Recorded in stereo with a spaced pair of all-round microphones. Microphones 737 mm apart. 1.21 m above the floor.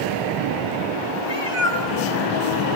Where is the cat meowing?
40° right (ahead or behind), 1.4 m.